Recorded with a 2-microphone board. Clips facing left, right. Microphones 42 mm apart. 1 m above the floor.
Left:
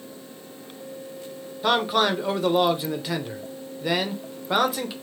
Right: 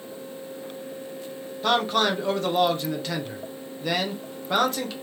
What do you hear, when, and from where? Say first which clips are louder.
1.6 s a man speaking: left 1 dB; 10° left (ahead or behind), 0.7 m